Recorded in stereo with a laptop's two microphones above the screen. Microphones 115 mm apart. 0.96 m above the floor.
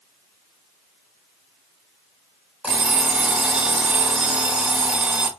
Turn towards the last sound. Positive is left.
turn(degrees=-10)  # may be behind; listen again after turning